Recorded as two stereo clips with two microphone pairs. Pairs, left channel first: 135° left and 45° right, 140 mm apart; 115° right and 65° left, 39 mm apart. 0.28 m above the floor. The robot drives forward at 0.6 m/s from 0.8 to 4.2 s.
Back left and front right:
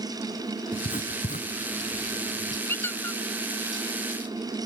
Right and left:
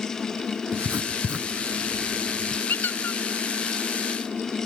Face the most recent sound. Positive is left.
turn(degrees=-150)